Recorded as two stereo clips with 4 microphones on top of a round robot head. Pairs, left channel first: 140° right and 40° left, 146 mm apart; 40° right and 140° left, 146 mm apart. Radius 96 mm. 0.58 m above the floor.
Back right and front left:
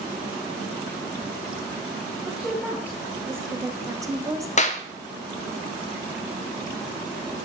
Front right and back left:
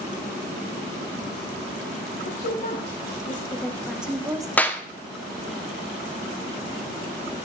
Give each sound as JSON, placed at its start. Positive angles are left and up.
{"t": 2.2, "sound": "a woman speaking", "azimuth_deg": -45, "distance_m": 1.4}
{"t": 4.6, "sound": "a clap", "azimuth_deg": -115, "distance_m": 0.8}